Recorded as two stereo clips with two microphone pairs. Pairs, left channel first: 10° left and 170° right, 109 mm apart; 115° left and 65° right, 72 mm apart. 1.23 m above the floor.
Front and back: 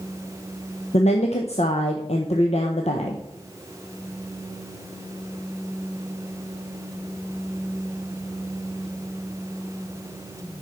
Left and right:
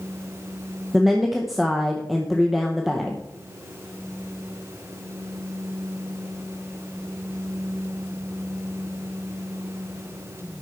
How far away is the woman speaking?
About 1.0 m.